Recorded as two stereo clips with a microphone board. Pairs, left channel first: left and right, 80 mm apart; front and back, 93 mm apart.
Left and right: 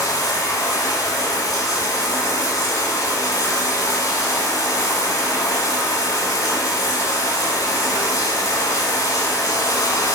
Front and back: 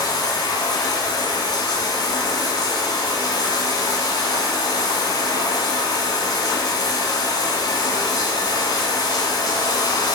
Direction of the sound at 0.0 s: 45° left.